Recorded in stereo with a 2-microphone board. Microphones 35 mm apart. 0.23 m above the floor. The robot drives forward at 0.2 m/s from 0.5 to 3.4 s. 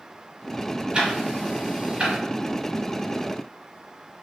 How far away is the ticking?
About 0.8 m.